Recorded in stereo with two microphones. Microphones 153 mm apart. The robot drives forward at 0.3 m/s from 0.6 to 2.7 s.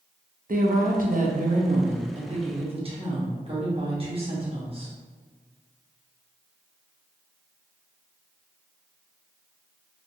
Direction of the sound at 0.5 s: 70° right (ahead or behind).